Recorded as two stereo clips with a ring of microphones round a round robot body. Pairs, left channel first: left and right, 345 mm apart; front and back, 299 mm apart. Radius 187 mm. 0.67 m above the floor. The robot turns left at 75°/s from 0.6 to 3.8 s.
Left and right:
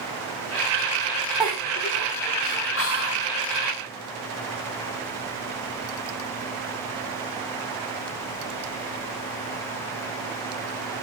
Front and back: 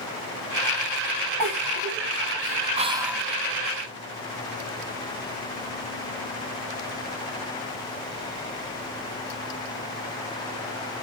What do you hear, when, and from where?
1.4 s a giggle: straight behind, 1.4 m; by 2.7 s 90° left, 1.4 m
2.8 s whispering: 120° left, 0.6 m; by 3.3 s 80° left, 0.6 m